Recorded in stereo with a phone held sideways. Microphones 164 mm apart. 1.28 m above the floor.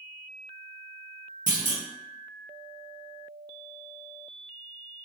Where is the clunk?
55° right (ahead or behind), 0.9 m.